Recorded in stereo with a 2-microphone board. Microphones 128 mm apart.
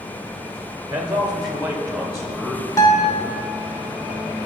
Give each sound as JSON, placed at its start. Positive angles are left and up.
{"t": 0.9, "sound": "a man speaking", "side_deg": -10, "distance_m": 0.8}
{"t": 2.8, "sound": "a guitar", "side_deg": 25, "distance_m": 1.0}